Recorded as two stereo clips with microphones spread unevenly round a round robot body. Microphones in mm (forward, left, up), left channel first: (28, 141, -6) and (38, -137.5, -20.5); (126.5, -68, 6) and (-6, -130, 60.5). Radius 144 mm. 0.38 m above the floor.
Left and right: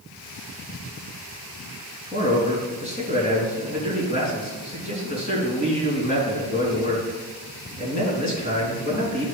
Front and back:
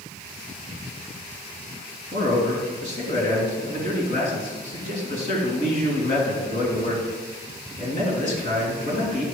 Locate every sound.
2.1 s a man speaking: 35° left, 3.5 m